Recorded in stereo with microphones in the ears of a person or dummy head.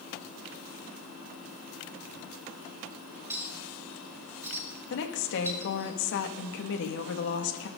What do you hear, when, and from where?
3.3 s a clink: 15° right (ahead or behind), 5 m
4.9 s a woman speaking: 65° left (ahead or behind), 1.7 m